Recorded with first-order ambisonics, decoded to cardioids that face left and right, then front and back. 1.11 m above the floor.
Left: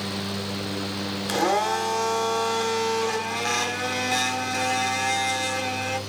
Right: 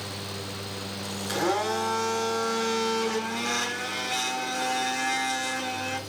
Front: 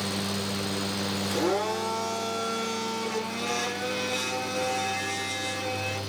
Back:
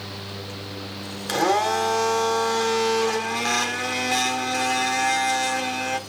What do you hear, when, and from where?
1.3 s a blender: 155° left, 2.5 m